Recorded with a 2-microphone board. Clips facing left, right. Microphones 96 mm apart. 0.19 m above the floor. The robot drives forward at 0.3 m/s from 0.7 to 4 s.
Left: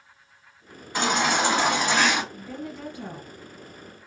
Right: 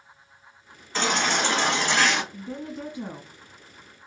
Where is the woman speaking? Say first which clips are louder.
Right 1 dB; 20° right (ahead or behind), 1.5 m.